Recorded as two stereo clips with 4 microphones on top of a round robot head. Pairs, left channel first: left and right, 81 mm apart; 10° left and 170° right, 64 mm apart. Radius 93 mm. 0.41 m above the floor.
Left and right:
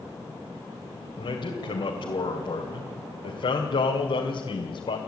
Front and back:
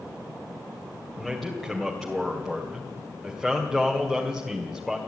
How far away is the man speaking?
About 2.5 m.